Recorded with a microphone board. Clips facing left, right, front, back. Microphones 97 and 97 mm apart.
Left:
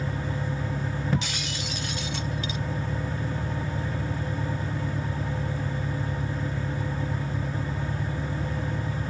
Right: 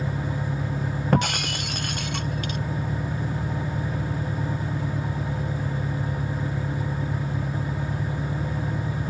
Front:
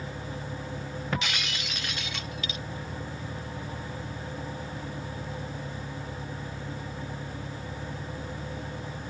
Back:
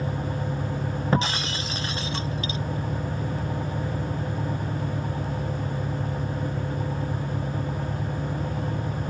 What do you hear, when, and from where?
0.0 s an engine running: 130° right
1.1 s breaking glass: 125° right